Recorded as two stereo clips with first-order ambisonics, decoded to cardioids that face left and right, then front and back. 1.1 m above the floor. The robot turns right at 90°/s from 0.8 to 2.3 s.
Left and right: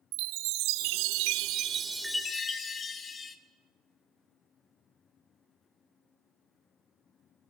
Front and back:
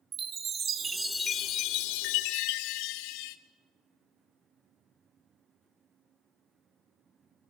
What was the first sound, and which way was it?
A chime, 115° right.